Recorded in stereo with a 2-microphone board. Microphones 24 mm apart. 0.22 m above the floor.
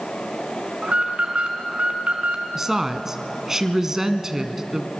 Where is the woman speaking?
15° right (ahead or behind), 1.8 m.